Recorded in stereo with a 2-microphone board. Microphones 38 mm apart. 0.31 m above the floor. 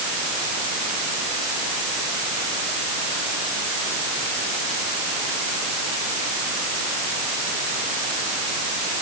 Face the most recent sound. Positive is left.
No sound to turn to.